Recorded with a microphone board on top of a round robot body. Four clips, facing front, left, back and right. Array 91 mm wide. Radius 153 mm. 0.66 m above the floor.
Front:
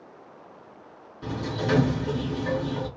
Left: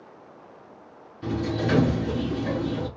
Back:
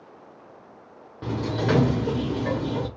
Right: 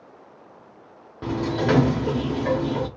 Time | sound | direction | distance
1.2 | a sliding door | 115° right | 0.5 m